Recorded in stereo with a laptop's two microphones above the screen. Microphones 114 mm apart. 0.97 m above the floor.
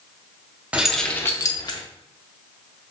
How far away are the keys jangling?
About 0.5 m.